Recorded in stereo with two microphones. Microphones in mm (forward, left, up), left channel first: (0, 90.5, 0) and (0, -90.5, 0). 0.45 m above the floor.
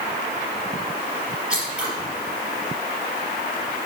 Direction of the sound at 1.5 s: 5° right (ahead or behind).